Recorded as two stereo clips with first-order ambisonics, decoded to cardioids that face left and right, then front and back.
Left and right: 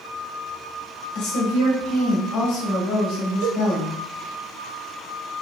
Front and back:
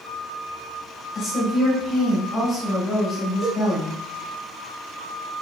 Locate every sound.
1.1 s a woman speaking: 70° left, 2.5 m
3.4 s a cowbell: 110° right, 1.0 m